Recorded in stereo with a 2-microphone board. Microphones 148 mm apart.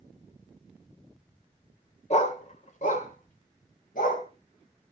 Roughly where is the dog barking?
Left.